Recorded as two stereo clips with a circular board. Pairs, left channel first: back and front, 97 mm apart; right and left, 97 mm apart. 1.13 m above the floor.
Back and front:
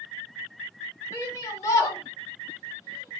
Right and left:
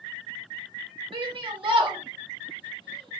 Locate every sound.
1.1 s a shout: 120° left, 2 m